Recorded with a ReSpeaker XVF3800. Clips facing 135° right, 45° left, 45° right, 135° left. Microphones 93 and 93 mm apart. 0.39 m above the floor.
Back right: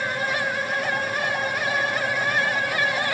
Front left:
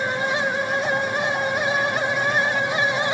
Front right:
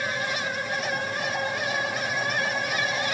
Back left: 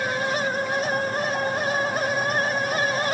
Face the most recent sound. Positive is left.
No sound to turn to.